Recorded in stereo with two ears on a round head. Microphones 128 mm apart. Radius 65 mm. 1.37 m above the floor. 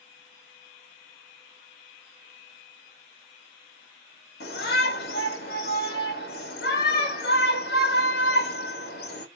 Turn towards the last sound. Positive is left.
turn(degrees=80)